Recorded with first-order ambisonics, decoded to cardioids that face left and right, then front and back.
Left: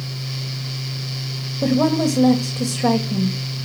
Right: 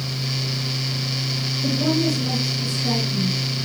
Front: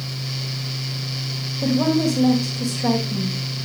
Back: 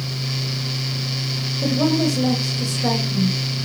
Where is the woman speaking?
95° left, 2.5 m.